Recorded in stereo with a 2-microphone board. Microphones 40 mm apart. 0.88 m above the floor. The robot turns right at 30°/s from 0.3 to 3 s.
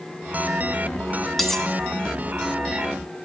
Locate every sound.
1.4 s cutlery clinking: 5° left (ahead or behind), 1.0 m; by 1.7 s 15° left (ahead or behind), 1.0 m